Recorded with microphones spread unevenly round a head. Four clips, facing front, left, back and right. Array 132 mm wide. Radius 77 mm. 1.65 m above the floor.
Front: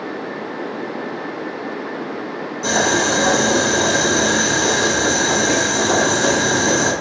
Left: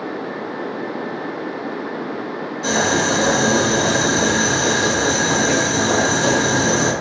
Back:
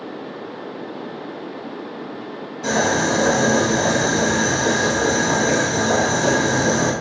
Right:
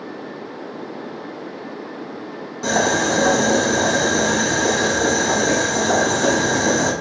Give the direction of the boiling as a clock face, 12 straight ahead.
3 o'clock.